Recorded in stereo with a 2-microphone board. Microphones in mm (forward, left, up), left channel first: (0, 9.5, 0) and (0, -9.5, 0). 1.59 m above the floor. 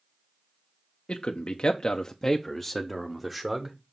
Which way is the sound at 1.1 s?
75° left (ahead or behind).